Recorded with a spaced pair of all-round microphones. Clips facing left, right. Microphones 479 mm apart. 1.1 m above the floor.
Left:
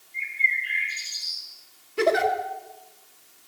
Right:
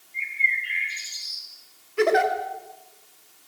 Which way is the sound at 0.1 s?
35° left (ahead or behind).